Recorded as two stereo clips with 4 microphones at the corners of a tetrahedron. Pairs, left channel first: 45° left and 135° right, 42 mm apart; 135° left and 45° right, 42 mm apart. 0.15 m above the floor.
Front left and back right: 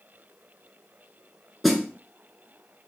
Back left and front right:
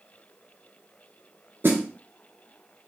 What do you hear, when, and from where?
1.6 s a snare drum: 45° right, 0.9 m